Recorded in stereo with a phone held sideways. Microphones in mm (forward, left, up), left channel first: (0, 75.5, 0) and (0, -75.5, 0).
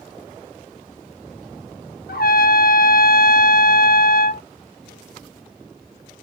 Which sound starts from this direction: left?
A trumpet, at 2.1 s.